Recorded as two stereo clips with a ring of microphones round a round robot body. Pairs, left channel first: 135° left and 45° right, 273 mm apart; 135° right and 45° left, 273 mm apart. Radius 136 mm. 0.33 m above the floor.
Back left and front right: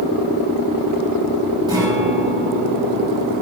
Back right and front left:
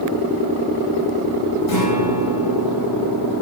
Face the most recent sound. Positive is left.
turn(degrees=-120)